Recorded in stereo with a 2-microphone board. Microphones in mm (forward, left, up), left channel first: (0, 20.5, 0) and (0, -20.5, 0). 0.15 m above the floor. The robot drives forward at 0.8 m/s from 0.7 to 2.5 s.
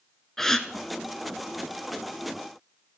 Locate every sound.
0.4 s a gasp: 10° left (ahead or behind), 0.7 m